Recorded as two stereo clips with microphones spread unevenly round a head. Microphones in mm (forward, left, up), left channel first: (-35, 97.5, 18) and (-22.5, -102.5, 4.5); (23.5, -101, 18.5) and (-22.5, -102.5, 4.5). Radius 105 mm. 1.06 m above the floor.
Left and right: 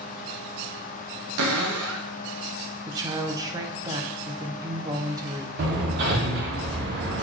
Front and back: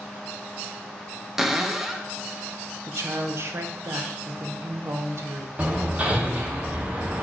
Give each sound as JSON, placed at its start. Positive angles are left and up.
{"t": 1.4, "sound": "a cupboard door", "azimuth_deg": -85, "distance_m": 0.5}
{"t": 2.9, "sound": "a woman speaking", "azimuth_deg": -160, "distance_m": 0.5}
{"t": 5.6, "sound": "hammering", "azimuth_deg": -105, "distance_m": 0.7}